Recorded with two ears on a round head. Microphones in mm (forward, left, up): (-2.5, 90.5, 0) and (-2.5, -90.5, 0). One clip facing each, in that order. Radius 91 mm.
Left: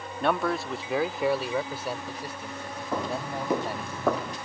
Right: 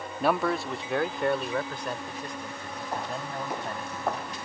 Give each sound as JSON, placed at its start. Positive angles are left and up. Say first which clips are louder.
{"t": 0.2, "sound": "a man speaking", "louder": "right 1 dB", "side_deg": -5}
{"t": 2.9, "sound": "footsteps", "louder": "left 4 dB", "side_deg": 70}